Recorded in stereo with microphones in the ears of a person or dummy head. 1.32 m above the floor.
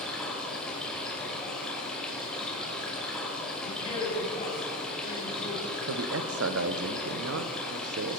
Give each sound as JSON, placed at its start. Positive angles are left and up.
{"t": 0.0, "sound": "running water", "side_deg": 5, "distance_m": 2.5}
{"t": 3.6, "sound": "a man speaking", "side_deg": 35, "distance_m": 2.5}
{"t": 5.9, "sound": "a man speaking", "side_deg": -70, "distance_m": 0.8}